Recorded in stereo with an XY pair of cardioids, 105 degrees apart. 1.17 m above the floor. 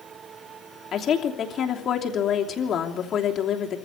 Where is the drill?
I don't hear a drill.